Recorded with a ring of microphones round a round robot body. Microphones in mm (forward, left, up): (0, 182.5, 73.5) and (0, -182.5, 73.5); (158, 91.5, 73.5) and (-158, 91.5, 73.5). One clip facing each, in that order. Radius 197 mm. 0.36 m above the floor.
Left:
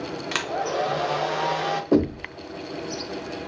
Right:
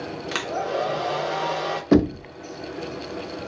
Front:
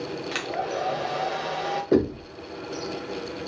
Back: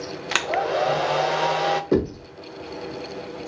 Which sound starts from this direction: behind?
A hair dryer, at 0.3 s.